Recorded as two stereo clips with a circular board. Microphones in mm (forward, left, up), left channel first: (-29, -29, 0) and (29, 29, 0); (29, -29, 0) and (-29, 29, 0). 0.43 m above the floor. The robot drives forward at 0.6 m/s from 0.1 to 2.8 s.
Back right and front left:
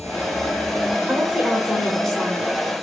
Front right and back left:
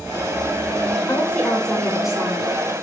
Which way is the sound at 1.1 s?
Straight ahead.